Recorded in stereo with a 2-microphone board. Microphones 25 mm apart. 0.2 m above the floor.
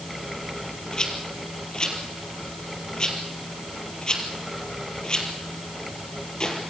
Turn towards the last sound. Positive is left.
turn(degrees=35)  # may be behind; listen again after turning